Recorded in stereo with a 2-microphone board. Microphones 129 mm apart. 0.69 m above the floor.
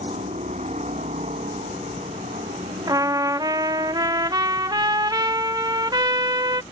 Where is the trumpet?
30° right (ahead or behind).